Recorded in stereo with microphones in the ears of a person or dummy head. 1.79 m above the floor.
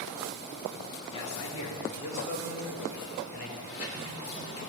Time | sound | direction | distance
1.1 | a man speaking | 80° left | 3 m
3.6 | a sliding door | 75° left (ahead or behind) | 3 m